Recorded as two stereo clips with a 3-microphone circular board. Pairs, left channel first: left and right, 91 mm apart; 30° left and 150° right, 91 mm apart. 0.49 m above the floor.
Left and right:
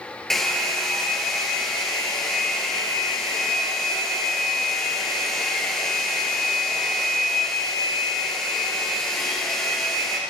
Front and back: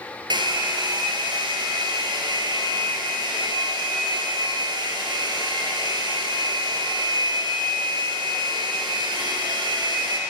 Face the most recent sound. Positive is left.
turn(degrees=175)